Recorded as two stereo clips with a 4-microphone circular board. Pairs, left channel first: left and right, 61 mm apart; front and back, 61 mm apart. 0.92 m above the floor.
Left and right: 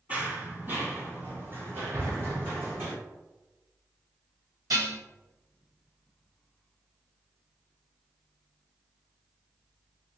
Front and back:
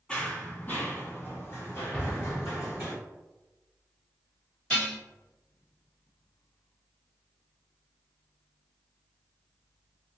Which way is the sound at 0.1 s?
50° right.